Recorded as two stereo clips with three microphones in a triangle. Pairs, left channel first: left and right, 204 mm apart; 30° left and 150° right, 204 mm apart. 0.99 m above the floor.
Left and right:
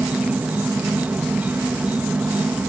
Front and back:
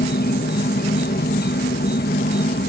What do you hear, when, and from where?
0.0 s an insect: 10° right